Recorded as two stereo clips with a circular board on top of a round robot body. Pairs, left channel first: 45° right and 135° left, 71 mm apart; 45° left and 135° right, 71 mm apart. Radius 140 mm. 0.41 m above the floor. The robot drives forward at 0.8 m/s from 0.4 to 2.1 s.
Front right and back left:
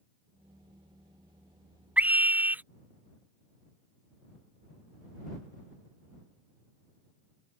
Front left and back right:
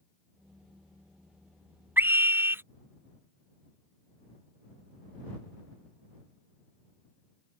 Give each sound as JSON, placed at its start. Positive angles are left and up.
{"t": 2.0, "sound": "a scream", "azimuth_deg": -170}